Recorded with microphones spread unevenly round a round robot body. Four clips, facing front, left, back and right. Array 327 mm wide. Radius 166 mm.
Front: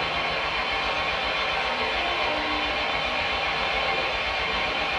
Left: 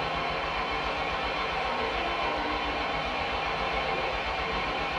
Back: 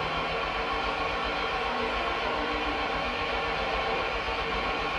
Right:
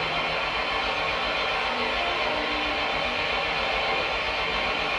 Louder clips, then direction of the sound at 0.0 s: Right 2 dB, front 2 dB; 140° right.